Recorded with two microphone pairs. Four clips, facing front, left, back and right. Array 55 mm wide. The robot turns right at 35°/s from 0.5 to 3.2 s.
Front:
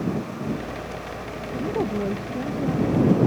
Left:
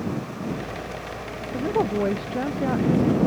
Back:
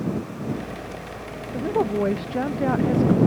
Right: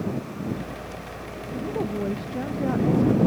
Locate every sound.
1.5 s a woman speaking: 120° left; by 3.2 s straight behind